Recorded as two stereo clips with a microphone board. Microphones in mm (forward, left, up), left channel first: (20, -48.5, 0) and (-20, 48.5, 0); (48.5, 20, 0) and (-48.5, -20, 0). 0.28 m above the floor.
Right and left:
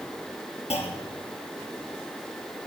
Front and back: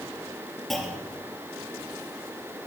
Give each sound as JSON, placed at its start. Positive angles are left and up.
{"t": 0.7, "sound": "a clunk", "azimuth_deg": -65, "distance_m": 3.0}